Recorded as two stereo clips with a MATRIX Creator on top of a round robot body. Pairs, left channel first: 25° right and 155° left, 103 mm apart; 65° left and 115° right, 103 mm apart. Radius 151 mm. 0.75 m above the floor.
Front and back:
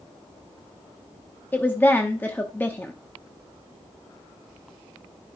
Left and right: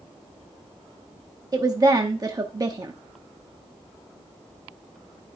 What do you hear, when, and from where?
1.5 s a woman speaking: 85° right, 1.0 m